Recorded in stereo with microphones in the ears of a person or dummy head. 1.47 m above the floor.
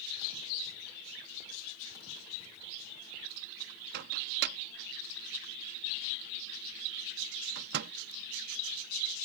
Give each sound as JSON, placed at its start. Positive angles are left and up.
{"t": 3.9, "sound": "a microwave", "side_deg": -60}